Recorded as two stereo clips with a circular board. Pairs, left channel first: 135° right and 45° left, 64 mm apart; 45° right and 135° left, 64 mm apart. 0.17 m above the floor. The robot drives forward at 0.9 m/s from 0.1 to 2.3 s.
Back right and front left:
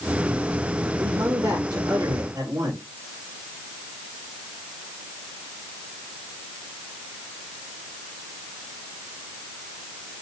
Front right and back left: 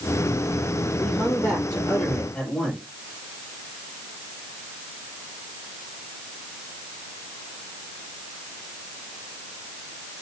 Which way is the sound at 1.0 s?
30° left.